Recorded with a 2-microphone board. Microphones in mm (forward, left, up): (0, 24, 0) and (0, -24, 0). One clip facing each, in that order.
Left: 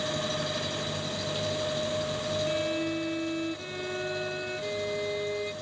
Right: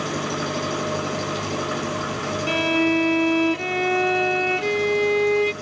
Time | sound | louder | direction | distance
0.0 | an engine running | right 5 dB | 50° right (ahead or behind) | ?
2.5 | a violin | right 14 dB | 75° right (ahead or behind) | ?